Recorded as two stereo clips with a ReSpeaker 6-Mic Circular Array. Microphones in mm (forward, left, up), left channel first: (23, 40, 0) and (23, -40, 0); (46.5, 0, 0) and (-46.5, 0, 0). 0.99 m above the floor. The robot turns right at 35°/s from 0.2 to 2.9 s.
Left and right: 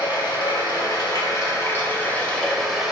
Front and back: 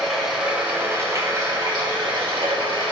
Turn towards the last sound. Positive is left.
turn(degrees=-175)